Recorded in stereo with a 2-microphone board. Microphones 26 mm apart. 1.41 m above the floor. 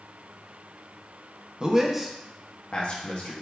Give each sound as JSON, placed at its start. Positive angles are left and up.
{"t": 1.6, "sound": "a man speaking", "side_deg": -30, "distance_m": 0.6}